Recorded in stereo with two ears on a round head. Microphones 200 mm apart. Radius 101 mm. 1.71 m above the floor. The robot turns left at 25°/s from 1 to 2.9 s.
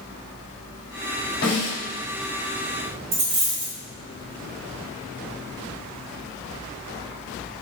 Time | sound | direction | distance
1.4 | a snare drum | 65° left (ahead or behind) | 1.9 m
3.1 | a dropped coin | 30° right (ahead or behind) | 1.2 m